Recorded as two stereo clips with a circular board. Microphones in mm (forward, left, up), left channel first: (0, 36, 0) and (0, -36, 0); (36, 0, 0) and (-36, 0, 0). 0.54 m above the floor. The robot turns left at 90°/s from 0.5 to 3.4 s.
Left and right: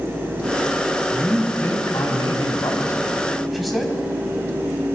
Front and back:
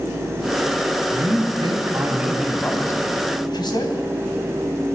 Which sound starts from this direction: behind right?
A man speaking, at 1.1 s.